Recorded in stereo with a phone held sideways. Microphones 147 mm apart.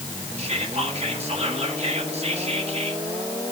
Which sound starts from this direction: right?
Whispering, at 0.4 s.